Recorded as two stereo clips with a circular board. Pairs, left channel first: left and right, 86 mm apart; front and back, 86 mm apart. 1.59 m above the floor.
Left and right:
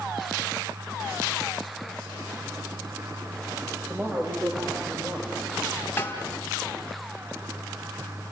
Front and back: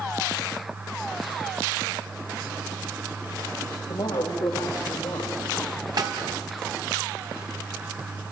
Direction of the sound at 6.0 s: 150° left.